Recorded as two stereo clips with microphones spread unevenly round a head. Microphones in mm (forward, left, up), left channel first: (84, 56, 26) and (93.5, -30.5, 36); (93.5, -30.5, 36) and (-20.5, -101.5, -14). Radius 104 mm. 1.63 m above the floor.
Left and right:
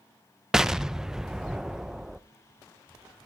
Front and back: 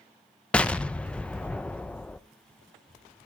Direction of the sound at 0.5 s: 10° right.